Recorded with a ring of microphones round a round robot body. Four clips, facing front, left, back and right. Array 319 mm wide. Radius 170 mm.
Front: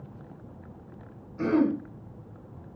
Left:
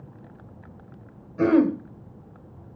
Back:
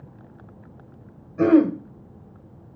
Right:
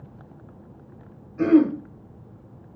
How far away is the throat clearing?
About 1.5 m.